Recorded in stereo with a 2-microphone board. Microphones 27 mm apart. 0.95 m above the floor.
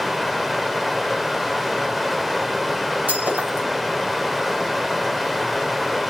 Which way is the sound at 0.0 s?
5° right (ahead or behind).